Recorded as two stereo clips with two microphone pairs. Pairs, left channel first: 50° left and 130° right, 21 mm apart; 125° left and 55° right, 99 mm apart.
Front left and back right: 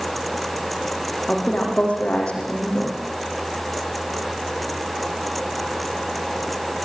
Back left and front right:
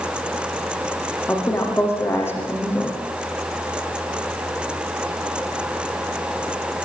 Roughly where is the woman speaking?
Ahead left.